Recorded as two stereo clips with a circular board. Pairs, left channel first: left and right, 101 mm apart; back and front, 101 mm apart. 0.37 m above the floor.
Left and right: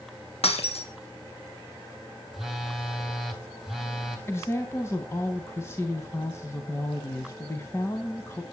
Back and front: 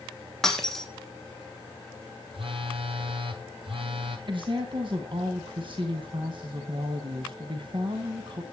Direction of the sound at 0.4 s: 95° left.